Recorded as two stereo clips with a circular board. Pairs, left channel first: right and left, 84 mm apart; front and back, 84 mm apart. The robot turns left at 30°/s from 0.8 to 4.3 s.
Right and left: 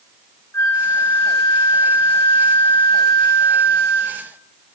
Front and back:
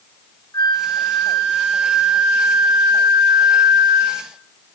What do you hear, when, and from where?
0.5 s a flute: 35° right, 0.9 m; by 4.3 s 140° right, 0.9 m